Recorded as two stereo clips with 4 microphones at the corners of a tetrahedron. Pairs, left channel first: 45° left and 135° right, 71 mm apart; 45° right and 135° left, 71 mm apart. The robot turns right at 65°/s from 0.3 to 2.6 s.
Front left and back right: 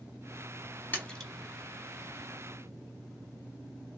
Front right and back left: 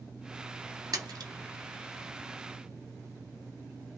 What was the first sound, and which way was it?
A splash, 110° left.